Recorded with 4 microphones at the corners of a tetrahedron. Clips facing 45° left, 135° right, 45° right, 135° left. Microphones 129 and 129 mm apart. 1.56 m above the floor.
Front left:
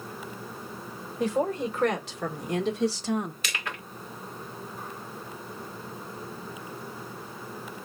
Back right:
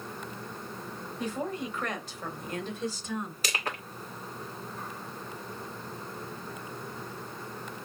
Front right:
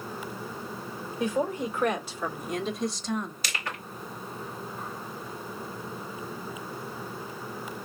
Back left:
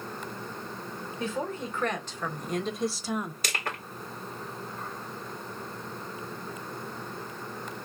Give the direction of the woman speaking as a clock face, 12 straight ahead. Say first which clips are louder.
Front left 7 dB, front right 5 dB; 11 o'clock.